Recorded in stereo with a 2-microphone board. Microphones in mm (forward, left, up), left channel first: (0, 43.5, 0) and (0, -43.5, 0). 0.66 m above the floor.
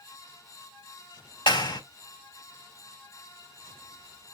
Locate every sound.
1.5 s a clap: 70° left (ahead or behind), 2.5 m